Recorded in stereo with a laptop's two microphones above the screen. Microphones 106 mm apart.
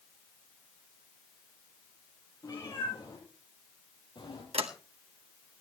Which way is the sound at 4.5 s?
70° right (ahead or behind).